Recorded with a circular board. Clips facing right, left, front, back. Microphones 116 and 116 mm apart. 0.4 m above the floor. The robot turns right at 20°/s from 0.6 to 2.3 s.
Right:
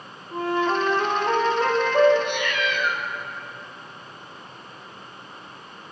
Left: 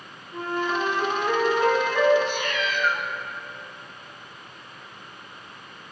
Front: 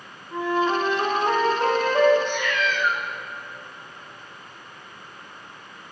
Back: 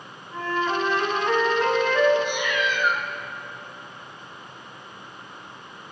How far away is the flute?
About 0.7 m.